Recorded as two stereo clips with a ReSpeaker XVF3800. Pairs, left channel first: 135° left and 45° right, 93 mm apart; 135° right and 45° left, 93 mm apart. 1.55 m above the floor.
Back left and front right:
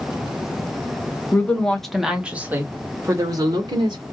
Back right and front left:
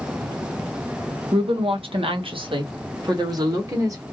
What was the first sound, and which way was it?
A woman speaking, 65° left.